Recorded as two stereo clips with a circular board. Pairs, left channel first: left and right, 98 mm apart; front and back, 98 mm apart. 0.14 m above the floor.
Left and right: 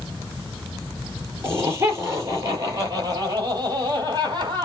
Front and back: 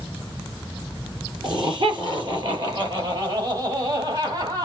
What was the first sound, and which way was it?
Laughter, 150° right.